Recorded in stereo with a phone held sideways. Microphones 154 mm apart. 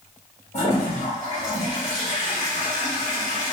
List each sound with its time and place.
0.5 s a toilet flushing: 45° left (ahead or behind), 1.5 m